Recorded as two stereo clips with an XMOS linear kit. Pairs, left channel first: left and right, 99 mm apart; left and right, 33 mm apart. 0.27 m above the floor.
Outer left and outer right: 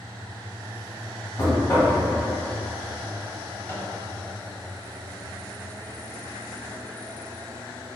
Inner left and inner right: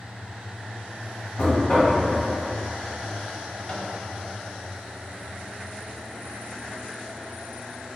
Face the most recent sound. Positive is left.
turn(degrees=25)  # may be behind; listen again after turning